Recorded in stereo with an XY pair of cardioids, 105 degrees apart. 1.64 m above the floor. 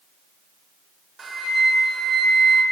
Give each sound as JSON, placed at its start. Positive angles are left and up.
{"t": 1.2, "sound": "a flute", "azimuth_deg": -40, "distance_m": 0.9}